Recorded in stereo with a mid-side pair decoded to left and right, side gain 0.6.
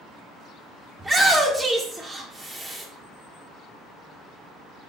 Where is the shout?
5° right, 1.7 m.